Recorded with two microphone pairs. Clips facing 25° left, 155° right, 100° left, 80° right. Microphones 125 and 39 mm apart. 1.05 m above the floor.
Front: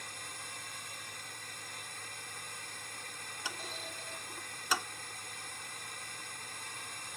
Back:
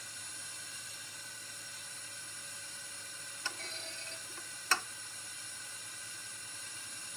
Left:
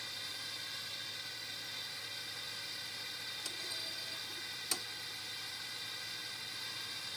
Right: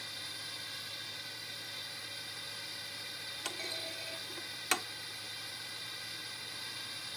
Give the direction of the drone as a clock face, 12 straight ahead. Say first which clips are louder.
Front 6 dB, even; 12 o'clock.